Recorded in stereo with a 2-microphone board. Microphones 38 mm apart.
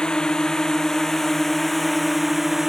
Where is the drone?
20° left (ahead or behind); by 2.7 s 10° right (ahead or behind).